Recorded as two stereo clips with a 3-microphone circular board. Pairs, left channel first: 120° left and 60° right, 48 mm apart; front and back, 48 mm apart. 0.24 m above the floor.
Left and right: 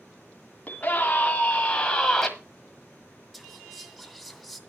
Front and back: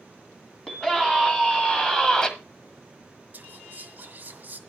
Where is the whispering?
145° right, 2.0 m.